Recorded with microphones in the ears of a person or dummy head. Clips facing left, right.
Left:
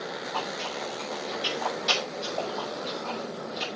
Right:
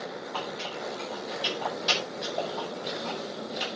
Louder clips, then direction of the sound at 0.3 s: Left 2 dB; 5° right (ahead or behind).